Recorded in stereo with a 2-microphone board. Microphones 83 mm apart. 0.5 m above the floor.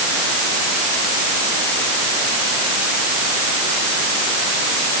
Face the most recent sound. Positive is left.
No sound to turn to.